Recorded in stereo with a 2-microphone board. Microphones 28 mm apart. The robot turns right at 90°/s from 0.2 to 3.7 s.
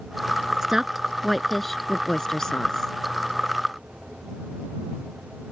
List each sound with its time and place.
0.6 s a woman speaking: 20° right (ahead or behind); by 2.9 s 15° left (ahead or behind)